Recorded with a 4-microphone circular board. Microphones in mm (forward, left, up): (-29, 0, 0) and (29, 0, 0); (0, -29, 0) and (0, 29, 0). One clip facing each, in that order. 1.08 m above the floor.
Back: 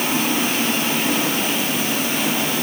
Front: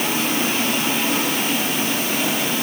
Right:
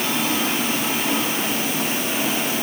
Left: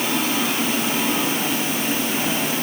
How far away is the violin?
I don't hear a violin.